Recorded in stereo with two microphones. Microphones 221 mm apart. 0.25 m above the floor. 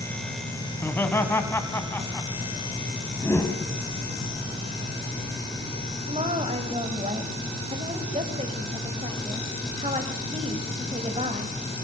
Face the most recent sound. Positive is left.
turn(degrees=-30)  # may be behind; listen again after turning